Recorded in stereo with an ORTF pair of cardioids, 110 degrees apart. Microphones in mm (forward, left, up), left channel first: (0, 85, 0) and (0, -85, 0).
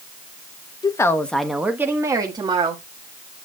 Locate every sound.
0.8 s a woman speaking: 25° left, 1.4 m; by 2.8 s 35° right, 2.5 m